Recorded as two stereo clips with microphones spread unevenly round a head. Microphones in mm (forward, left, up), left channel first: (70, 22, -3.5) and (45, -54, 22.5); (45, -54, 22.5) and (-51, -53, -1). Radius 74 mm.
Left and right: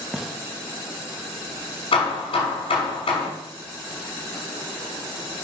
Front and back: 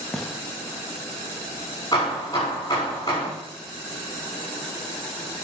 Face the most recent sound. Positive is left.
turn(degrees=65)